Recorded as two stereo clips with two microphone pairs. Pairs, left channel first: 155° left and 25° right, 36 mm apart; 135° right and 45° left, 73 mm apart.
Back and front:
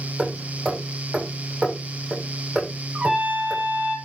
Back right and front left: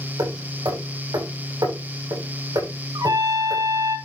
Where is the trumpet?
30° left, 4.5 m.